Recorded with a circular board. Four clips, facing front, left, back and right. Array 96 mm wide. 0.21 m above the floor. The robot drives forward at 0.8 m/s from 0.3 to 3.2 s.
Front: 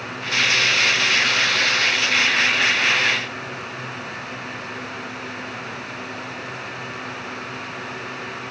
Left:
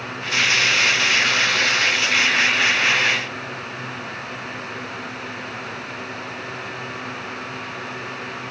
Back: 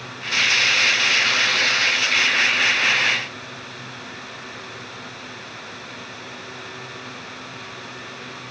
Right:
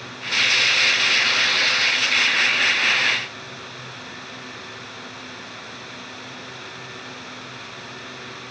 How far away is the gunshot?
No gunshot in this recording.